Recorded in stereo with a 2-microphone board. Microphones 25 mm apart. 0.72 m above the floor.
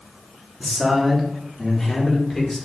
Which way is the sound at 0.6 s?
25° right (ahead or behind).